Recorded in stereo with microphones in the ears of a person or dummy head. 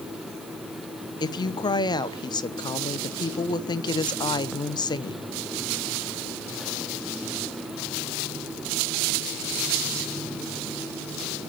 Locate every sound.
1.2 s a woman speaking: 20° left (ahead or behind), 0.8 m